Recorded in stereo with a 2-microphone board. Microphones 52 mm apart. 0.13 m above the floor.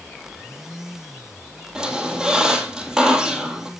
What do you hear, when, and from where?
1.8 s a squeak: 10° right (ahead or behind), 2.5 m